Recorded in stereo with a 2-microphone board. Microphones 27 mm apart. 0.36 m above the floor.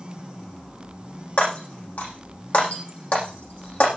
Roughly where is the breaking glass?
Left.